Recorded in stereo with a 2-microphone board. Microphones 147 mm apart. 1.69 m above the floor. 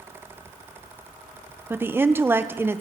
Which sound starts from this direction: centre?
A woman speaking, at 1.7 s.